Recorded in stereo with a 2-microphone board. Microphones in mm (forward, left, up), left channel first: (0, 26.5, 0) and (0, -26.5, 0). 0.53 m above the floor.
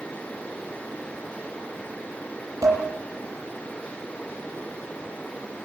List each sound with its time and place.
2.6 s dishes clattering: 90° right, 9.5 m